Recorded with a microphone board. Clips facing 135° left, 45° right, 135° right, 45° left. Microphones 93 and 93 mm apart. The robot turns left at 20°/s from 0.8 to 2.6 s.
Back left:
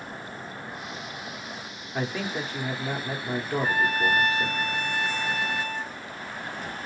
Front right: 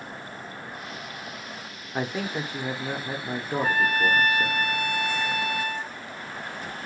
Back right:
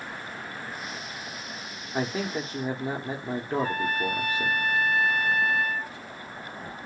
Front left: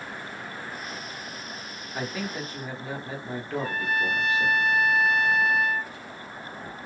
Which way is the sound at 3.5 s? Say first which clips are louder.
Front right 2 dB, even; 135° right.